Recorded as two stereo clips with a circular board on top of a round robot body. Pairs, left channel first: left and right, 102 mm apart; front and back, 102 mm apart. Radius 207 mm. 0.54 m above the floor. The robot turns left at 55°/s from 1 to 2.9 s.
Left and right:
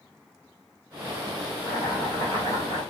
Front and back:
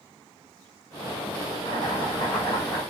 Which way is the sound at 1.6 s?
5° right.